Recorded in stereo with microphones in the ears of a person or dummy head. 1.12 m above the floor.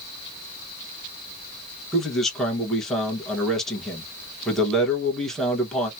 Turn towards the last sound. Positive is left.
turn(degrees=0)  # may be behind; listen again after turning